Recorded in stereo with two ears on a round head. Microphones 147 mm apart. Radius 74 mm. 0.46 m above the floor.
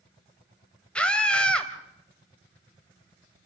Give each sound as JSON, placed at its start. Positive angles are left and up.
{"t": 0.9, "sound": "a scream", "side_deg": 5, "distance_m": 3.0}